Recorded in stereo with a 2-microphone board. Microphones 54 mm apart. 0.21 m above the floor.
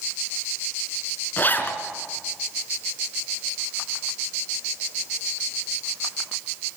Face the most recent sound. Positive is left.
turn(degrees=40)  # may be behind; listen again after turning